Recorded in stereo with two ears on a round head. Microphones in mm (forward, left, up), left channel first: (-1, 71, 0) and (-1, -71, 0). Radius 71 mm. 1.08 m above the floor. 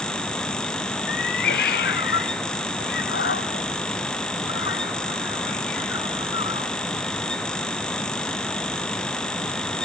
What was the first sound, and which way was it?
A cat meowing, 65° left (ahead or behind).